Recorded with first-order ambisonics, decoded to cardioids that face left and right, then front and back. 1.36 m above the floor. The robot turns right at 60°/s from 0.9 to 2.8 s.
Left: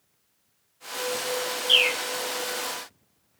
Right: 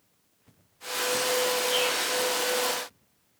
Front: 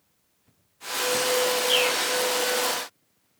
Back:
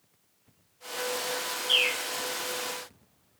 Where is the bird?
85° left, 0.7 m; by 2.0 s 105° left, 0.7 m.